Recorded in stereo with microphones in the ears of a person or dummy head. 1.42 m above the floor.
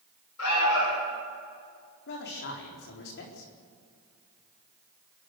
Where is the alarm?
85° left, 8.5 m.